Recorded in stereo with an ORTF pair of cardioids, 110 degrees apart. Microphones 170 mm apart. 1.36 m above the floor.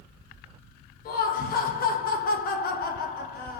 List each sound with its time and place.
1.1 s laughter: 55° left, 0.9 m